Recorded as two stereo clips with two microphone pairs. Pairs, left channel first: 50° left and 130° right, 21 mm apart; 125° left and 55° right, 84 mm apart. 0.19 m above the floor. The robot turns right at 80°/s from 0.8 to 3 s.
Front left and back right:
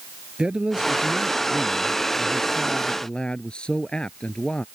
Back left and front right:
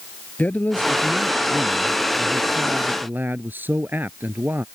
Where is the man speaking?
165° right; by 4.7 s 10° left.